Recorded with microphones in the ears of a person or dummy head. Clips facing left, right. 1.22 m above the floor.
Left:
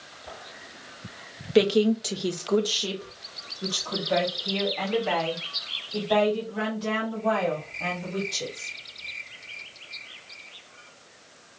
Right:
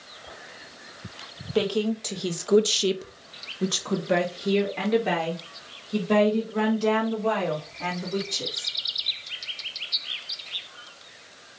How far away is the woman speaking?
About 0.7 m.